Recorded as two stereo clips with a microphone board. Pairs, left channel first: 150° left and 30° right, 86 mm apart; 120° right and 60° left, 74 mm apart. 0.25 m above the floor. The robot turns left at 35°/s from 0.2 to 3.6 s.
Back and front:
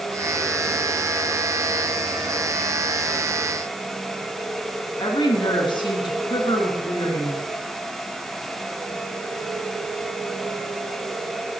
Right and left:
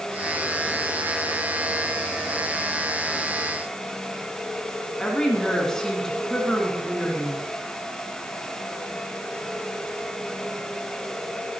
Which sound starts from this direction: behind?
A woman speaking, at 5.0 s.